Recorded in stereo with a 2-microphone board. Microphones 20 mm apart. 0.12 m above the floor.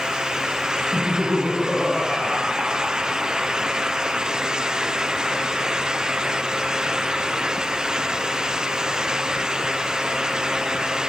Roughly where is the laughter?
Right.